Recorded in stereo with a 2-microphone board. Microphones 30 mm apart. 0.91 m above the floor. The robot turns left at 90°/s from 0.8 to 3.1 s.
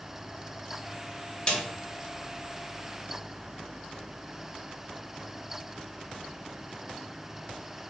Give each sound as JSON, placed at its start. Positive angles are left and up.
{"t": 1.5, "sound": "a snare drum", "side_deg": 30, "distance_m": 0.8}